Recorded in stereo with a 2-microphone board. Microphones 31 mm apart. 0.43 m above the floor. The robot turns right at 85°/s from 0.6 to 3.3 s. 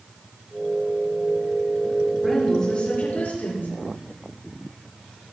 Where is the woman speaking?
10° right, 7 m; by 3.7 s 85° left, 7 m.